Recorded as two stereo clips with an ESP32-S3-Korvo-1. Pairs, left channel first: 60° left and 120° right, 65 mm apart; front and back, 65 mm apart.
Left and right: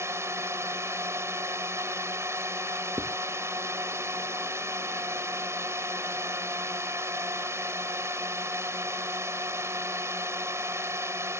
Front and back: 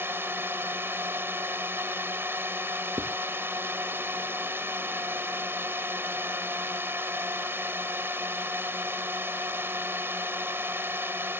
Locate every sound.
0.0 s a drone: 140° right
3.0 s writing: 155° right